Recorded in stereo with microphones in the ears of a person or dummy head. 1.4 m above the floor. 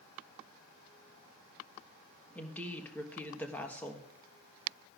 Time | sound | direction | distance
2.4 | a woman speaking | 5° left (ahead or behind) | 1.3 m